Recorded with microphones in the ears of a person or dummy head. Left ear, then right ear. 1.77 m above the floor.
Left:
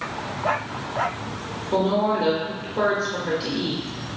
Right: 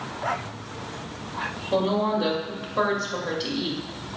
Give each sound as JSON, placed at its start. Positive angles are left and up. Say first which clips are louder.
{"t": 1.7, "sound": "a woman speaking", "louder": "left 3 dB", "side_deg": -20, "distance_m": 0.7}